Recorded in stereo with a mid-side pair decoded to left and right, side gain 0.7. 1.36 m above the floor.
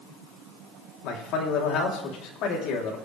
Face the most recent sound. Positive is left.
turn(degrees=60)